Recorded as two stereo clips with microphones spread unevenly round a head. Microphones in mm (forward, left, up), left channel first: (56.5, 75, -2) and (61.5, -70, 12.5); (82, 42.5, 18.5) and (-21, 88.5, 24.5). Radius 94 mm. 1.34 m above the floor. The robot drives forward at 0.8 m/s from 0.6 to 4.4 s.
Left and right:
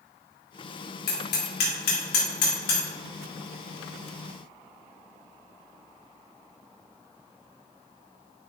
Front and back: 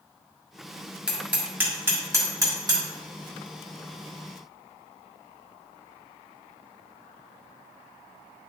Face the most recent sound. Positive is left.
turn(degrees=125)